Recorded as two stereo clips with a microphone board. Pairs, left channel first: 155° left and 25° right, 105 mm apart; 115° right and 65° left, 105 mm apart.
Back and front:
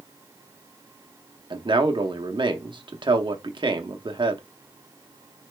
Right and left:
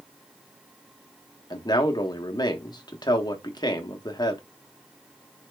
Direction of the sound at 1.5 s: 65° right.